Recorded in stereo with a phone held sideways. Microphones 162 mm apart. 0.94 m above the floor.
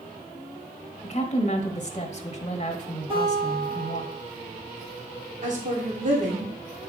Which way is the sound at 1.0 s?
45° left (ahead or behind).